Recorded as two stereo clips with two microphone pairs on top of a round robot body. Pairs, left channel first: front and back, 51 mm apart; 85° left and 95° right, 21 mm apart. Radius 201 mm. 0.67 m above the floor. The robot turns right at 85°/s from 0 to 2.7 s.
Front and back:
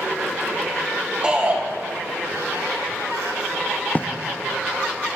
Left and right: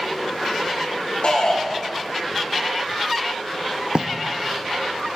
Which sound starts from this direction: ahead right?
Writing, at 4.0 s.